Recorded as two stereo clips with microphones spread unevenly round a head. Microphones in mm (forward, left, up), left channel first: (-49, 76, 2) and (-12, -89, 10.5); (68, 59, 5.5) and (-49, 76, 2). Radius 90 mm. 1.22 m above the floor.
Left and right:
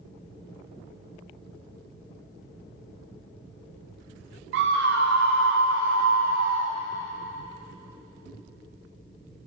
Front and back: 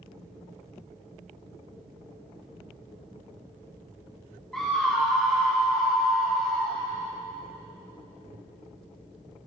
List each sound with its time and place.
4.5 s a scream: 95° right, 0.6 m